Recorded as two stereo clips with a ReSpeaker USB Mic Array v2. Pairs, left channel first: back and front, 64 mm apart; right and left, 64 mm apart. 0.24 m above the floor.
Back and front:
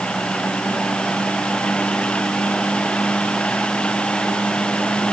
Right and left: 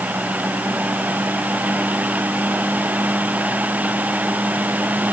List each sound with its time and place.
Only background noise.